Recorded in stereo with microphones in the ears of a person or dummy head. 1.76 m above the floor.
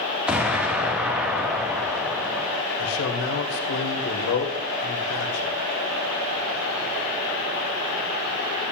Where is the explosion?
Centre (ahead or behind), 1.6 m.